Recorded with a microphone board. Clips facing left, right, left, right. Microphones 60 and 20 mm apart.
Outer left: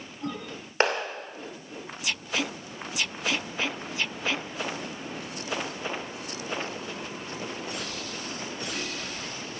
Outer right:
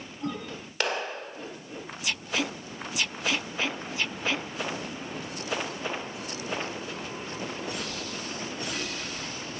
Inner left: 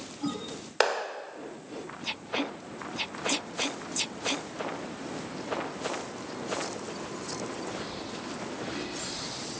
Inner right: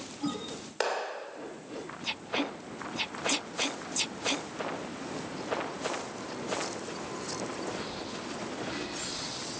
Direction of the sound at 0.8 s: 35° left (ahead or behind).